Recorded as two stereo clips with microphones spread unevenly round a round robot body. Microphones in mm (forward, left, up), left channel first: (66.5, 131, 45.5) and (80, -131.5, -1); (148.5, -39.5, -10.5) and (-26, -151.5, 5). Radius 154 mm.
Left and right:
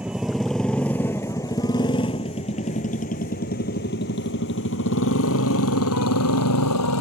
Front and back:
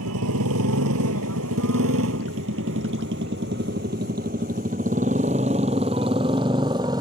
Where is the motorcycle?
175° right; by 7.0 s 135° left.